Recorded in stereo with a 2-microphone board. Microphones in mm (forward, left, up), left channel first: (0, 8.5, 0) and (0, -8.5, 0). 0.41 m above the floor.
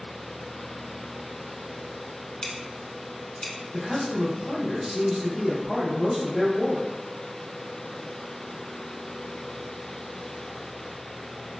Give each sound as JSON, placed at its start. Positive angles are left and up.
{"t": 2.4, "sound": "scissors", "side_deg": 75, "distance_m": 0.8}
{"t": 3.7, "sound": "a man speaking", "side_deg": -15, "distance_m": 1.3}